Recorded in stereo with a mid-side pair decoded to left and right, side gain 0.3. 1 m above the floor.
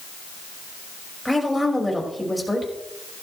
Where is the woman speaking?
5° left, 5.5 m.